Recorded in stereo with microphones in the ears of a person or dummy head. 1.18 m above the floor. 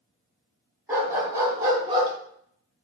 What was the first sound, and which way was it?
A dog barking, 10° right (ahead or behind).